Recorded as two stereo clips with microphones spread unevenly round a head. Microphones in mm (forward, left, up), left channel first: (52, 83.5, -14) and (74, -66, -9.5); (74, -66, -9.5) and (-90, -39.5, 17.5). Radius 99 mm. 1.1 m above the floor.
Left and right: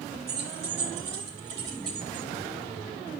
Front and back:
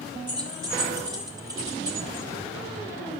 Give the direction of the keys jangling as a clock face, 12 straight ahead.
4 o'clock.